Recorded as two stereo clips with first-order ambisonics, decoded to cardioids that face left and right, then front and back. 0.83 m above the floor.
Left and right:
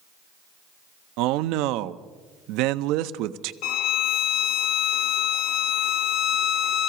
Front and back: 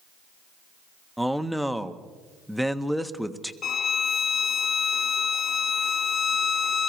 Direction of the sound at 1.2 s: 90° right.